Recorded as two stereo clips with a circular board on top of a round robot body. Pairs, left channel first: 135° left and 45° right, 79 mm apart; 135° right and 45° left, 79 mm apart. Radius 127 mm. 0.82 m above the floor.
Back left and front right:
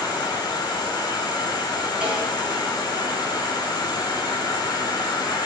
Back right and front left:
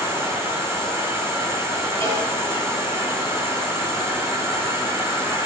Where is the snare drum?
30° left, 8.5 m.